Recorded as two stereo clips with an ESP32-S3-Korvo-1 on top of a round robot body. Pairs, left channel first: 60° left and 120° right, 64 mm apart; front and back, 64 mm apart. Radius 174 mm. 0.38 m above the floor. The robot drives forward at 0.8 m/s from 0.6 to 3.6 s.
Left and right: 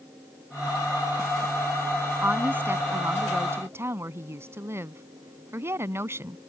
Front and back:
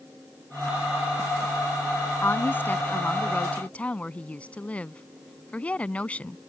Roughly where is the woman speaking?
Ahead right.